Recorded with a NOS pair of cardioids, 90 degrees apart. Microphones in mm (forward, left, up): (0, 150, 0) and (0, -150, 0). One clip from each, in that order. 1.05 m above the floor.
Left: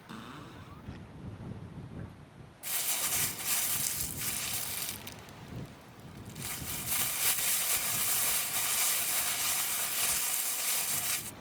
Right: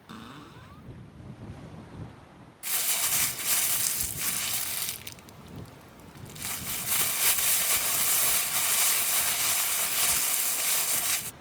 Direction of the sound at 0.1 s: 15° right.